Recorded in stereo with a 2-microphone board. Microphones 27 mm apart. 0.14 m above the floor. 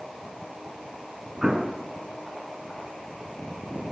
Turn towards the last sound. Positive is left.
turn(degrees=-25)  # may be behind; listen again after turning